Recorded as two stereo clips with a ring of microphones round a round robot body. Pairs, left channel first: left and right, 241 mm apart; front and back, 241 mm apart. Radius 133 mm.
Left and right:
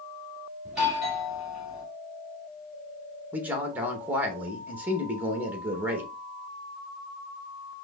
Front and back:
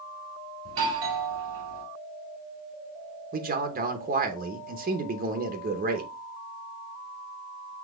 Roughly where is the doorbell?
Behind.